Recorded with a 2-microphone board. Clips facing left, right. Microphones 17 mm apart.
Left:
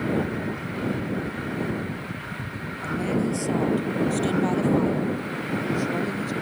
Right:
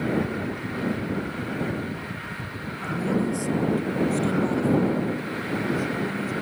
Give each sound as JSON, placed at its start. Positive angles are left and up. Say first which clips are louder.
{"t": 2.8, "sound": "a woman speaking", "louder": "even", "side_deg": 20}